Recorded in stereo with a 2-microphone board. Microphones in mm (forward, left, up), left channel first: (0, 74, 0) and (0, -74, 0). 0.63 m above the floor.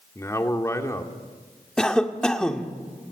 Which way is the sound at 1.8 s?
5° left (ahead or behind).